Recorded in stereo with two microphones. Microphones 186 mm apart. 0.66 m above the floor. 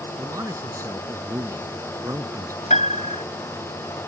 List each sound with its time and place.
0.2 s a man speaking: 15° right (ahead or behind)
2.7 s a piano: 40° left (ahead or behind)